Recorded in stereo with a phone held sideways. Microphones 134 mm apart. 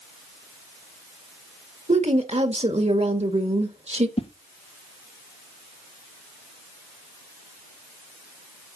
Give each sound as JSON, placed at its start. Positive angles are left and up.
{"t": 1.9, "sound": "a woman speaking", "side_deg": -50, "distance_m": 1.5}
{"t": 4.2, "sound": "a whoosh", "side_deg": 45, "distance_m": 0.8}